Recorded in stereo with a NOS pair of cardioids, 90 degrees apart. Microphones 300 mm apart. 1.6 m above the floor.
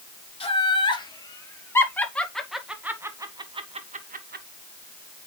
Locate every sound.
0.4 s laughter: 20° left, 2.5 m; by 4.5 s 35° right, 1.5 m